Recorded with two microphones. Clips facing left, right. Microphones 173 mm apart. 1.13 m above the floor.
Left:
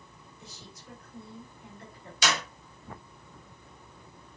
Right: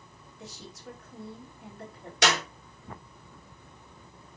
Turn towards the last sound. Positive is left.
turn(degrees=-75)  # may be behind; listen again after turning